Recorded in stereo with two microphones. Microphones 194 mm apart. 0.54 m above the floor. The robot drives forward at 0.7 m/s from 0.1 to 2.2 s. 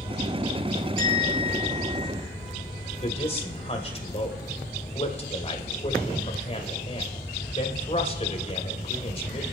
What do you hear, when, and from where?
1.0 s a bell: 90° right, 5 m; by 2.1 s 80° right, 5 m
3.0 s a man speaking: 35° left (ahead or behind), 3 m